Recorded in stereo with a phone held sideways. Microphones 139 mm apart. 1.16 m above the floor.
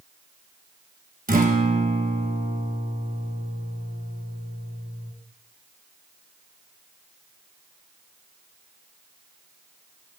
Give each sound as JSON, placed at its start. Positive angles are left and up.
{"t": 1.3, "sound": "a guitar", "side_deg": -70, "distance_m": 1.1}